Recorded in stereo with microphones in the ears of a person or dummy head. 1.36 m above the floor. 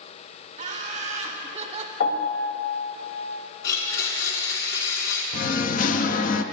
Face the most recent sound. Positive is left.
turn(degrees=40)  # may be behind; listen again after turning